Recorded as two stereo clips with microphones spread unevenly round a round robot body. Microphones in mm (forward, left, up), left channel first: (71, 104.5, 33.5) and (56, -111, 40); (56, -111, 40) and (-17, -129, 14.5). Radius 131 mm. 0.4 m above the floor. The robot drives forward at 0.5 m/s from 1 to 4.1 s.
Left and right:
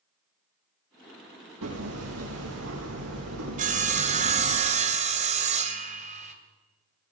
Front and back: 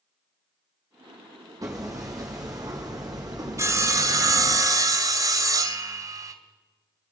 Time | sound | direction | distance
1.6 | hammering | 125° right | 7 m
3.6 | sawing | 145° right | 1.8 m